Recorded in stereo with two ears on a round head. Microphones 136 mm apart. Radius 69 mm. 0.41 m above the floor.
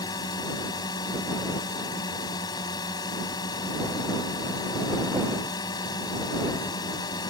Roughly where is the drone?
Left.